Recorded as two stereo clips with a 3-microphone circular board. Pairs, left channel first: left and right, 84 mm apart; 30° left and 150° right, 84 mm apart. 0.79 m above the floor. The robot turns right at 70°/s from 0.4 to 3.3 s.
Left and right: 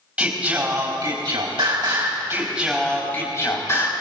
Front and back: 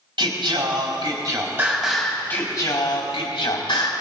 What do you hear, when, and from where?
0.2 s singing: 165° right, 4 m; by 3.9 s 40° left, 4 m